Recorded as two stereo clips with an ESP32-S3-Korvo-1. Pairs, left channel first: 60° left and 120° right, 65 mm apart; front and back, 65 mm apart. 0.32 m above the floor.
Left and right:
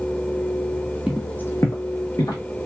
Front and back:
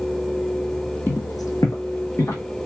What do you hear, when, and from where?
1.1 s footsteps: 50° right, 0.6 m; by 2.4 s 45° left, 2.0 m